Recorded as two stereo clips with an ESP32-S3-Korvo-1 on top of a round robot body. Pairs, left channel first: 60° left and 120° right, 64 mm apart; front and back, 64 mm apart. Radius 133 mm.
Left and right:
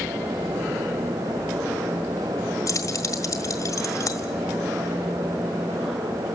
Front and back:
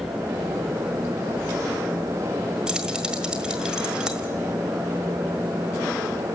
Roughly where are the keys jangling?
Left.